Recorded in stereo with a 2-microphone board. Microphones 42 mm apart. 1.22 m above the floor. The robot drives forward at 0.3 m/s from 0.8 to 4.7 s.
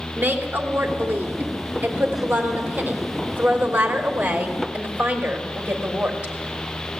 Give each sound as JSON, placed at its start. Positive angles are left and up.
{"t": 0.1, "sound": "a woman speaking", "side_deg": -45, "distance_m": 4.0}